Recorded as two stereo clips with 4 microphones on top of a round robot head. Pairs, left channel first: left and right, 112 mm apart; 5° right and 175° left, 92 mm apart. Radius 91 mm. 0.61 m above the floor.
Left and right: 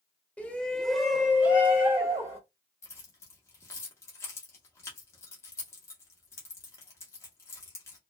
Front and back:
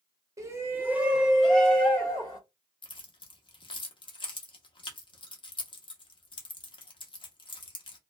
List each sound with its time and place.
0.4 s a shout: 160° left, 1.1 m; by 2.4 s 45° right, 1.1 m
2.8 s keys jangling: 25° left, 0.8 m